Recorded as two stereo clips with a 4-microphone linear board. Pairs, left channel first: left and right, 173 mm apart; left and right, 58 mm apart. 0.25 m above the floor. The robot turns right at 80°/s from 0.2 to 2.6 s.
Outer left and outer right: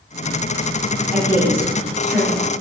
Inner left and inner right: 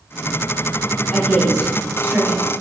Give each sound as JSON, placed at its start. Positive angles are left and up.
{"t": 1.1, "sound": "a woman speaking", "side_deg": 5, "distance_m": 1.1}